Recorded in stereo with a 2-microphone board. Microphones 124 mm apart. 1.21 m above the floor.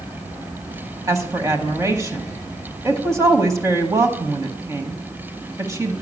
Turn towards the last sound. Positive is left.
turn(degrees=-25)  # may be behind; listen again after turning